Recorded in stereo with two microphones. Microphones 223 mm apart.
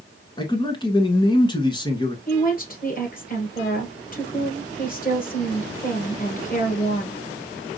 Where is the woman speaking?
35° left (ahead or behind), 1.9 m.